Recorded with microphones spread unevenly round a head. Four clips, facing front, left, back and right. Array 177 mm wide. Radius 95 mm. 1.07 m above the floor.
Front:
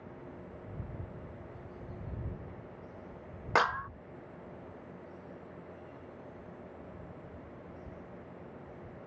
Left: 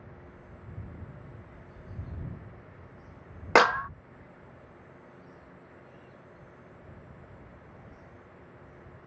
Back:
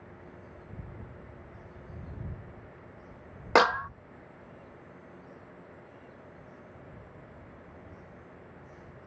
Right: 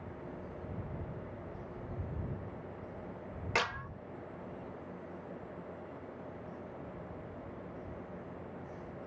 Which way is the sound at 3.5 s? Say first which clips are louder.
Left 14 dB, back 6 dB; 130° left.